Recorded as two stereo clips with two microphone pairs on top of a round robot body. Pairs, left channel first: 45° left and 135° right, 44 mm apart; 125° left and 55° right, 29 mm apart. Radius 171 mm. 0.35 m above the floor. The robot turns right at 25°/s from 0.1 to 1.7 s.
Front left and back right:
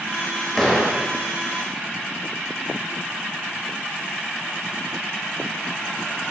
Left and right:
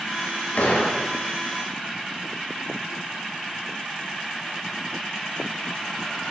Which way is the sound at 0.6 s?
120° left.